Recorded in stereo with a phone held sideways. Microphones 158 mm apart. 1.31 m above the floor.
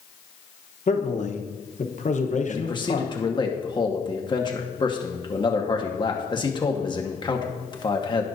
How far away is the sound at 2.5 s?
About 1.4 m.